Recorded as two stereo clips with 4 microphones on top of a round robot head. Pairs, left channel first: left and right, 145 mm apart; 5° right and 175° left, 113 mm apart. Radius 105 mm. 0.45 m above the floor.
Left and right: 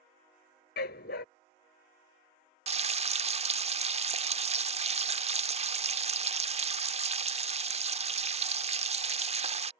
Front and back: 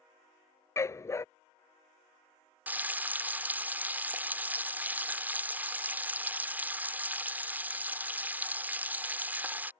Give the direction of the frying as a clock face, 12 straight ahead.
4 o'clock.